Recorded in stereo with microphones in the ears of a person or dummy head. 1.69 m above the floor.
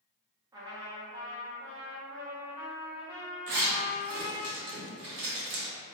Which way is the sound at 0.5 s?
20° right (ahead or behind).